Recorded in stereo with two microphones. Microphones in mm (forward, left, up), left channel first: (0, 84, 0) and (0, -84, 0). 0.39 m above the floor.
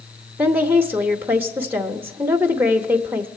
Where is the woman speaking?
10° right (ahead or behind), 0.8 m.